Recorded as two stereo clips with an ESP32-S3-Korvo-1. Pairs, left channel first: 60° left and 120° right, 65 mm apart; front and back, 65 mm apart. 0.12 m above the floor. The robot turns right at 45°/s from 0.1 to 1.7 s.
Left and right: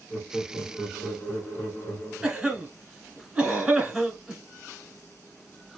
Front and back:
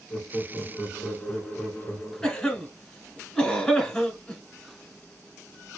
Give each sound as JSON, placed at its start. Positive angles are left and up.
{"t": 0.1, "sound": "laughter", "azimuth_deg": -10, "distance_m": 1.1}
{"t": 2.2, "sound": "a cough", "azimuth_deg": -60, "distance_m": 1.2}